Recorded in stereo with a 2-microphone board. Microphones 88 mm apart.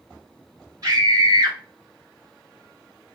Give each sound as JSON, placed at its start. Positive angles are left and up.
{"t": 0.8, "sound": "a scream", "side_deg": -45, "distance_m": 1.7}